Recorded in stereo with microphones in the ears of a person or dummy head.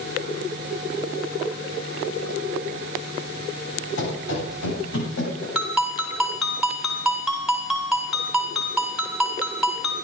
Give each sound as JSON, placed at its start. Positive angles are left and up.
{"t": 4.0, "sound": "running footsteps", "side_deg": 75, "distance_m": 7.5}
{"t": 5.5, "sound": "a ringtone", "side_deg": 0, "distance_m": 3.5}